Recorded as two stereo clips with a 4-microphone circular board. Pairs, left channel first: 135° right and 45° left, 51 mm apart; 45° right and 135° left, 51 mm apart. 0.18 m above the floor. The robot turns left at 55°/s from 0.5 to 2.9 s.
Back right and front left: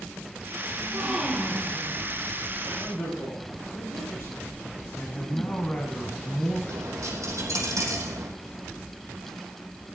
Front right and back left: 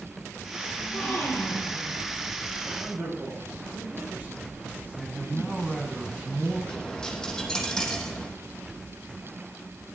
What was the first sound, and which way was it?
A gasp, 5° right.